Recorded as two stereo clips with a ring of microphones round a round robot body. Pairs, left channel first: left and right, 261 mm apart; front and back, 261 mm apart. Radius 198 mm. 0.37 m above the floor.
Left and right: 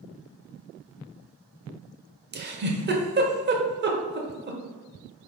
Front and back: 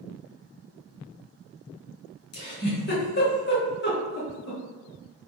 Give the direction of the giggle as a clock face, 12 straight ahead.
1 o'clock.